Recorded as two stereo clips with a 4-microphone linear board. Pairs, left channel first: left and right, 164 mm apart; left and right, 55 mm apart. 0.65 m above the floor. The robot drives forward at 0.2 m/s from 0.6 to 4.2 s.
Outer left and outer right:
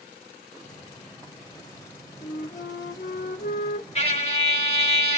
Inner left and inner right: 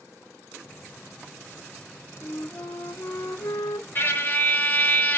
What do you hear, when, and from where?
2.2 s a flute: 80° left, 1.0 m; by 3.9 s 75° left (ahead or behind), 1.0 m
4.0 s a trumpet: 40° left (ahead or behind), 1.8 m